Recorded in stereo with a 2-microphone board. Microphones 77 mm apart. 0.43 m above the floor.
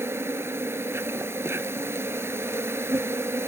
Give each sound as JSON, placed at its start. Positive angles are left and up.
{"t": 0.0, "sound": "an insect", "side_deg": -35, "distance_m": 0.7}